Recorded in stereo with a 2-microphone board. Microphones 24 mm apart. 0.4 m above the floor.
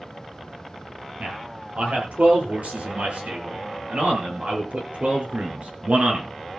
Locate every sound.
1.2 s a man speaking: 75° right (ahead or behind), 8 m; by 6.3 s 60° right (ahead or behind), 4.5 m